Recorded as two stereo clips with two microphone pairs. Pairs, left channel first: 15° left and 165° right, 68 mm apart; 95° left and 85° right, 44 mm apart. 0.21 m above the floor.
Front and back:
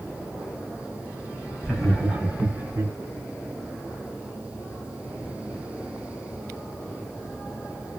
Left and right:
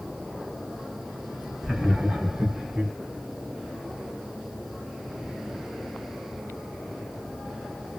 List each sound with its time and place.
1.6 s laughter: 25° right, 1.4 m; by 2.9 s 140° right, 1.8 m